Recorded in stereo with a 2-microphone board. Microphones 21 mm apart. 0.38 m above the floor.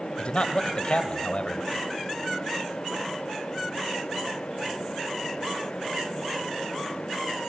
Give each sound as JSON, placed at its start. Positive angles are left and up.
{"t": 0.2, "sound": "a man speaking", "side_deg": 55, "distance_m": 1.4}